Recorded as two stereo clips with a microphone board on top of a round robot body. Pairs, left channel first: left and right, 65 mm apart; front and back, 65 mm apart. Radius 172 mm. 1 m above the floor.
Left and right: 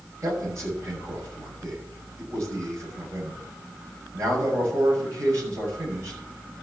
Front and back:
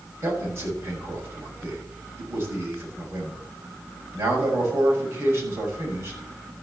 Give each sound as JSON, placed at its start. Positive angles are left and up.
{"t": 0.2, "sound": "a man speaking", "azimuth_deg": -135, "distance_m": 6.5}